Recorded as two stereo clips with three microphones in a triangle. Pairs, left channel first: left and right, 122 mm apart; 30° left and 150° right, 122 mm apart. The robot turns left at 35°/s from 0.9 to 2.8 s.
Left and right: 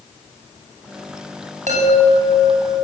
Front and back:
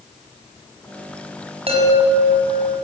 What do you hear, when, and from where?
1.7 s a chime: 110° right, 6.5 m; by 2.9 s 150° right, 6.5 m